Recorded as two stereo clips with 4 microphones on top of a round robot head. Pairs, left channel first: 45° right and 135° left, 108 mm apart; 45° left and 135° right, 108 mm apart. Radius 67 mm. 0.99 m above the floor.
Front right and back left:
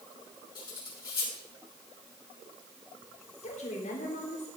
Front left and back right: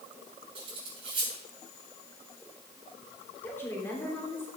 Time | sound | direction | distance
0.6 | cutlery clinking | 95° right | 7 m
3.4 | a woman speaking | 25° right | 3.5 m